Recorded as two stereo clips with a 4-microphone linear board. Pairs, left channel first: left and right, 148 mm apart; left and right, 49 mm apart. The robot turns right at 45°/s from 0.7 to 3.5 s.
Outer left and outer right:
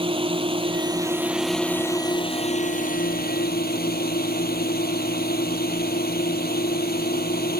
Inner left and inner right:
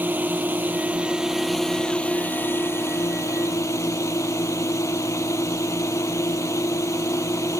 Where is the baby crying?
I don't hear a baby crying.